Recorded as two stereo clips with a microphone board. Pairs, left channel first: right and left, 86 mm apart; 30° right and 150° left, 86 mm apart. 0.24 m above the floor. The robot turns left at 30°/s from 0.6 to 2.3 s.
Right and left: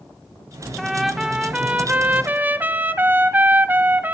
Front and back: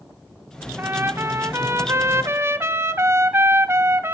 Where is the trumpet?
Straight behind, 1.1 m; by 4.2 s 135° left, 1.1 m.